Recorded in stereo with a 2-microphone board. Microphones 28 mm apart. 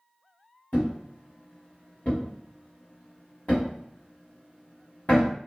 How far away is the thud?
About 1.1 m.